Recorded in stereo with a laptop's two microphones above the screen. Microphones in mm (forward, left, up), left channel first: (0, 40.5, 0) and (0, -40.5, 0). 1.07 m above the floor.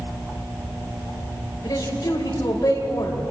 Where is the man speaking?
50° left (ahead or behind), 5.5 m.